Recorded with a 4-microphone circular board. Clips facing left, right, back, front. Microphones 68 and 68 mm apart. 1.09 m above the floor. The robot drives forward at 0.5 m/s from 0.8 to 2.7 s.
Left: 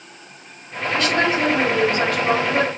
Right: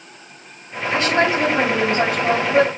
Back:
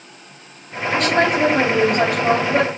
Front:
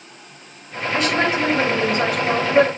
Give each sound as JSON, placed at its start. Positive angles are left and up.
{"t": 0.9, "sound": "a woman speaking", "azimuth_deg": -150, "distance_m": 5.5}